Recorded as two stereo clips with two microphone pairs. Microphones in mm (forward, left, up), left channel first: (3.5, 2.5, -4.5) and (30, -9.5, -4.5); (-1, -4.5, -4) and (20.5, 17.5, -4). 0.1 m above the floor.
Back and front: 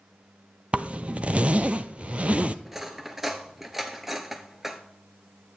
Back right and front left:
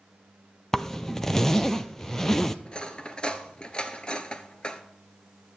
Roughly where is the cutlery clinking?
Right.